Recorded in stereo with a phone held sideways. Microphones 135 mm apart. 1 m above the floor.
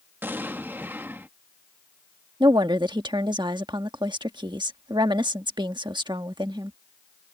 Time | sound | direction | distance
0.2 | an explosion | 15° right (ahead or behind) | ?
2.4 | a woman speaking | 35° right (ahead or behind) | ?